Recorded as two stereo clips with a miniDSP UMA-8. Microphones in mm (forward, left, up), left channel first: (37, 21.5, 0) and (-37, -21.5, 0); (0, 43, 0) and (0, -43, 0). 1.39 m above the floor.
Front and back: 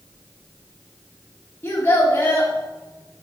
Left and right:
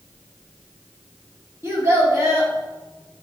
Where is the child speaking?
35° right, 2.5 m.